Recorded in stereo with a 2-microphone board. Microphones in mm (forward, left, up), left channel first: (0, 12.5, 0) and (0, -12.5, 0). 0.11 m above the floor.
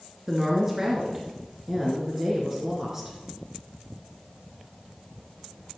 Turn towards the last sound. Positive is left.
turn(degrees=-15)  # may be behind; listen again after turning